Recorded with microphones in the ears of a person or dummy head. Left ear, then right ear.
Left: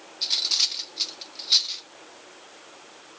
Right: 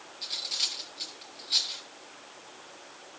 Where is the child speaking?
No child speaking in this recording.